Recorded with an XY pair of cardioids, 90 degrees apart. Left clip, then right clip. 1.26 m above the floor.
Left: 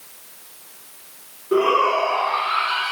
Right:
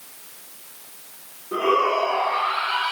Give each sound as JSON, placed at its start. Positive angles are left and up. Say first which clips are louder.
{"t": 1.5, "sound": "a shout", "louder": "left 3 dB", "azimuth_deg": 65, "distance_m": 4.5}